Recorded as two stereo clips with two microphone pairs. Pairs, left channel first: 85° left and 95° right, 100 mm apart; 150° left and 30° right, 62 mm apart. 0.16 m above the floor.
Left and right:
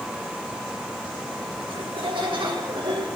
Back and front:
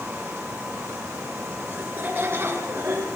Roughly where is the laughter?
Right.